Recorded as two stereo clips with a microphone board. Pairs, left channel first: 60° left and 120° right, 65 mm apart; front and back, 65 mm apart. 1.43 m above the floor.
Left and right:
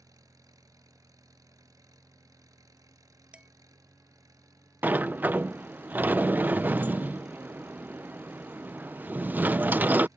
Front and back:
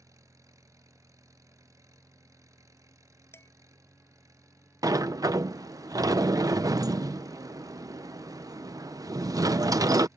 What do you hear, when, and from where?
0.0 s an engine running: 150° right
3.3 s dishes clattering: 50° right
4.8 s a sliding door: 175° left